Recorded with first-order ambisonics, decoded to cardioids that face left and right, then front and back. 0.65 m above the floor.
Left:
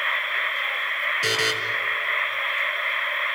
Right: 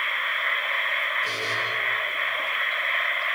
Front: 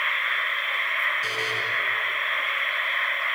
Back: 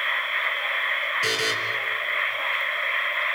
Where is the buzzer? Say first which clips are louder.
Left 4 dB, back 3 dB; 120° left, 5 m.